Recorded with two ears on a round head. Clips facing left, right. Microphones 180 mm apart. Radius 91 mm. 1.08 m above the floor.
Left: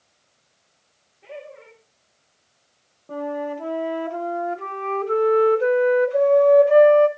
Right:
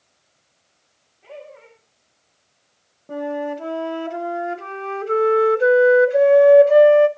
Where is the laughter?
35° left (ahead or behind), 6.5 m.